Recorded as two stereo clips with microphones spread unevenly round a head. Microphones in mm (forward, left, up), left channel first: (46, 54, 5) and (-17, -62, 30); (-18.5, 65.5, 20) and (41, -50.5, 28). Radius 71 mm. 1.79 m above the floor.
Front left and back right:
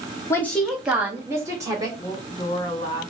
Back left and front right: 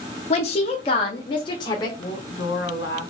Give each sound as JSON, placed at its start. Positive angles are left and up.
{"t": 0.3, "sound": "a woman speaking", "azimuth_deg": 140, "distance_m": 0.6}
{"t": 2.0, "sound": "a woman speaking", "azimuth_deg": 125, "distance_m": 1.8}